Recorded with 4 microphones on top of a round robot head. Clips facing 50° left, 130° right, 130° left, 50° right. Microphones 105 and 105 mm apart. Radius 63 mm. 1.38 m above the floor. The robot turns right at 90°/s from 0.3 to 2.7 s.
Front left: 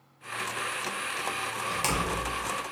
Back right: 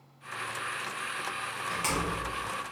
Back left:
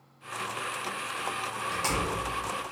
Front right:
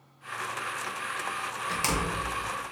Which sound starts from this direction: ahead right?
A door slam, at 1.7 s.